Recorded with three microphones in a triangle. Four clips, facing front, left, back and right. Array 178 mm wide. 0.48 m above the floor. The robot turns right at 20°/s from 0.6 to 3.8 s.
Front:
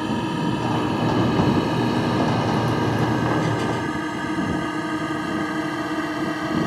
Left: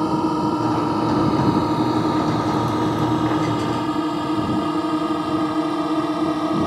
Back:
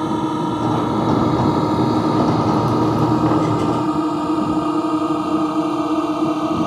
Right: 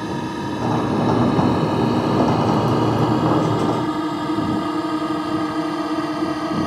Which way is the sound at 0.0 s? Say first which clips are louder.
Left 6 dB, back 4 dB; 130° left.